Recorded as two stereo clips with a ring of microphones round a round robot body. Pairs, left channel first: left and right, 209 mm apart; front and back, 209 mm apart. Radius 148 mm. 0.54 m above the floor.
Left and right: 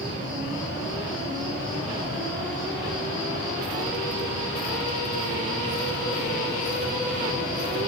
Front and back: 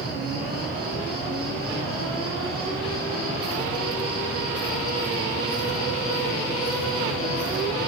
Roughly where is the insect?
Behind left.